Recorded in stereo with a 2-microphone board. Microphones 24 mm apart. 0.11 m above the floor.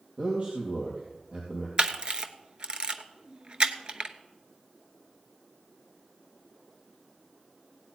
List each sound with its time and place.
0.2 s a man speaking: 55° right (ahead or behind), 3.5 m
1.8 s a camera shutter: 40° right (ahead or behind), 0.9 m